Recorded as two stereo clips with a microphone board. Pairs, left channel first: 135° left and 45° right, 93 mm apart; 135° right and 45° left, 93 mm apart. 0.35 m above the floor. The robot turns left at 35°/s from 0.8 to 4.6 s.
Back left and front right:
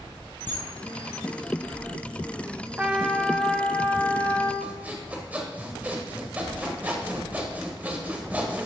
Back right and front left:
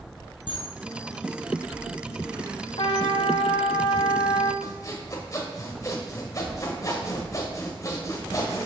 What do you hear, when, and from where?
0.5 s a camera shutter: 160° right, 1.8 m
2.8 s a trumpet: 120° right, 0.6 m; by 4.5 s straight behind, 0.6 m
4.6 s sawing: 110° right, 1.3 m